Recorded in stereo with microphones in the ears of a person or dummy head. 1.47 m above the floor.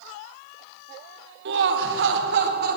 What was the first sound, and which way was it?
Laughter, 60° right (ahead or behind).